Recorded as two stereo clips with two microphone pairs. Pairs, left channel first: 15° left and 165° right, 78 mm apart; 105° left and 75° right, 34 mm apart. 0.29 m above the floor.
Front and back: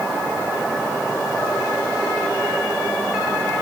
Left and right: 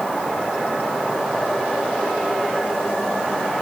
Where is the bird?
I don't hear a bird.